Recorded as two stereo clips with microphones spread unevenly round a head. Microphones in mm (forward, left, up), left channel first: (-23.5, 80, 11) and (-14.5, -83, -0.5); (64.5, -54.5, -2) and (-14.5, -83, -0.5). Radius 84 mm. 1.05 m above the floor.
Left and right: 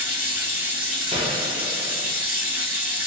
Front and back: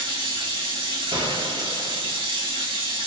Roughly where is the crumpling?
I don't hear crumpling.